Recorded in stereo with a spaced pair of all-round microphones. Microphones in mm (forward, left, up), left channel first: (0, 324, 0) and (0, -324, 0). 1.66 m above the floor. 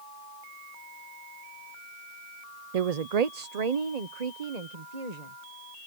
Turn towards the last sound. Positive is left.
turn(degrees=-85)